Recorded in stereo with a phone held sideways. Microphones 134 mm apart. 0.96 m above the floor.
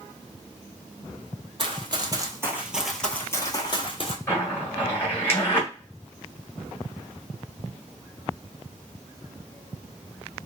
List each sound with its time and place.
1.6 s running footsteps: 40° right (ahead or behind), 1.3 m; by 4.2 s 45° left (ahead or behind), 1.3 m
4.3 s a zipper: 20° left (ahead or behind), 1.3 m